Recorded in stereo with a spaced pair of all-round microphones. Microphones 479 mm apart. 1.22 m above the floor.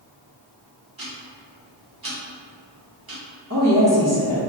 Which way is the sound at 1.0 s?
45° right (ahead or behind).